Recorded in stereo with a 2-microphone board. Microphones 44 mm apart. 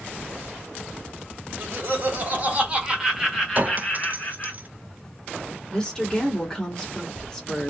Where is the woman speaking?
15° left (ahead or behind), 1.4 m.